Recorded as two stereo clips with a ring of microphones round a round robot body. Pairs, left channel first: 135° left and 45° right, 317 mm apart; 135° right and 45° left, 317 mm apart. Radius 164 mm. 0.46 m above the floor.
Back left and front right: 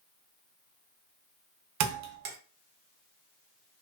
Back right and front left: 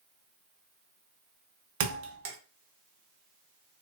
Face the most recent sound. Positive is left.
turn(degrees=-5)